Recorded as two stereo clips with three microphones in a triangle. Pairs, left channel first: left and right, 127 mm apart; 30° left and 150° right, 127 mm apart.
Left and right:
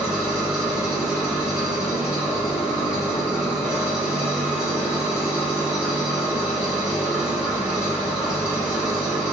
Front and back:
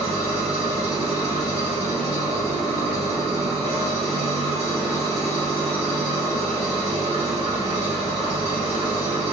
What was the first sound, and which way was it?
An engine running, 175° right.